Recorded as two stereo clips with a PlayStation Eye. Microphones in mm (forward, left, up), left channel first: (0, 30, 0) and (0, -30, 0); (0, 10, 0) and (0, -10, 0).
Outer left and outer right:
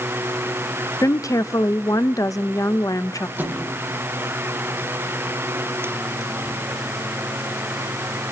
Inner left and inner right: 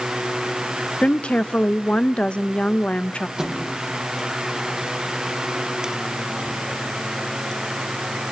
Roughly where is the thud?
Right.